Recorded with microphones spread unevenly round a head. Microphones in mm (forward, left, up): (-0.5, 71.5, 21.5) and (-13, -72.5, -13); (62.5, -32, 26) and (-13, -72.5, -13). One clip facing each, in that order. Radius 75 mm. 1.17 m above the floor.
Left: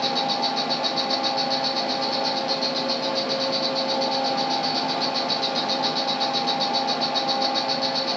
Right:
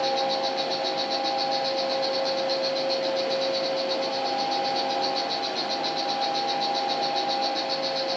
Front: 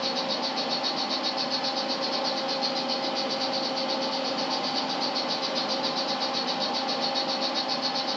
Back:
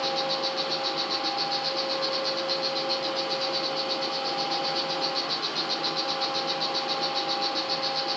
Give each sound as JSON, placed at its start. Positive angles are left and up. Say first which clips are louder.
{"t": 0.0, "sound": "an insect", "louder": "even, back 1 dB", "azimuth_deg": 70, "distance_m": 5.5}